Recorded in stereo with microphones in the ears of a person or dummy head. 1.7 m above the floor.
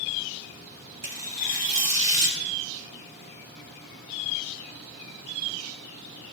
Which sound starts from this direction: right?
Tearing paper, at 1.0 s.